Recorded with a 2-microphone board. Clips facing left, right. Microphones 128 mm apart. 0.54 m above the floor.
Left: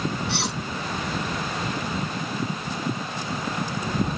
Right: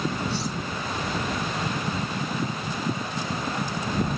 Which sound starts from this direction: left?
Cutlery clinking, at 0.3 s.